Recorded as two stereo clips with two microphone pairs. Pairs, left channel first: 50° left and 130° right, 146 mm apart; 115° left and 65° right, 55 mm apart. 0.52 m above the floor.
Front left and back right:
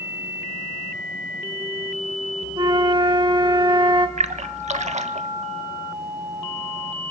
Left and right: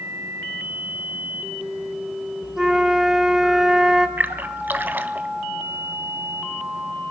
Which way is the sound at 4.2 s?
110° right.